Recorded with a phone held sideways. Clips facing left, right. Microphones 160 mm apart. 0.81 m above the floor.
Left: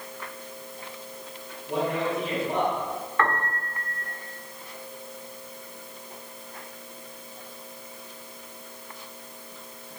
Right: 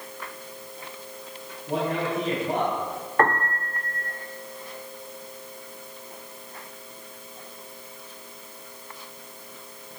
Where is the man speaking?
45° right (ahead or behind), 7 m.